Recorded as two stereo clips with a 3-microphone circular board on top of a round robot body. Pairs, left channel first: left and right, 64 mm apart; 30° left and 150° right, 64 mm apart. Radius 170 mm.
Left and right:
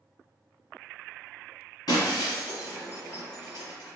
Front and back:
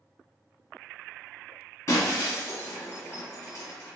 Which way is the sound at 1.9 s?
75° left.